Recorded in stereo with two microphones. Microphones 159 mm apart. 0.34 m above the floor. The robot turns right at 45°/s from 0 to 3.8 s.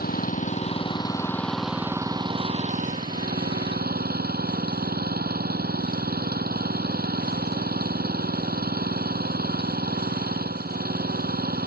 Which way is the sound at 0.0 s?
110° left.